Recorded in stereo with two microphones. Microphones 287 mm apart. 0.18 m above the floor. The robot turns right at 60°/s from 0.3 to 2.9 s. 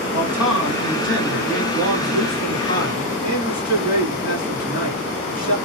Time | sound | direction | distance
0.1 | a man speaking | 10° right | 2.5 m